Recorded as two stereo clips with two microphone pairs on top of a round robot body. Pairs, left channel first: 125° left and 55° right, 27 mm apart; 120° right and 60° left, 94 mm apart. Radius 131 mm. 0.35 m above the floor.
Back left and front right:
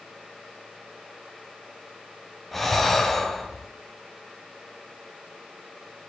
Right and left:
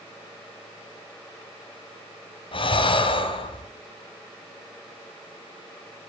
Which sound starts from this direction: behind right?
Breathing, at 2.5 s.